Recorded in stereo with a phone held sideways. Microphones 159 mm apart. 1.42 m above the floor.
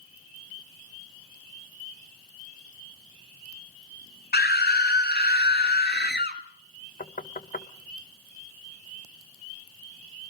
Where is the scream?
75° left (ahead or behind), 1.4 m.